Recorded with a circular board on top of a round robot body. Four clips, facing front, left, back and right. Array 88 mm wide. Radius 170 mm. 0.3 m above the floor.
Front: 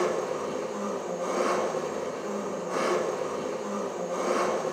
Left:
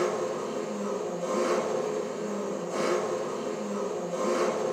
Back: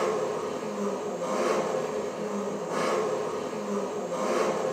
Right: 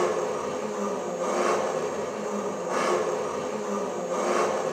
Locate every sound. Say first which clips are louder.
0.0 s an engine running: right 3 dB, even; 85° right, 1.8 m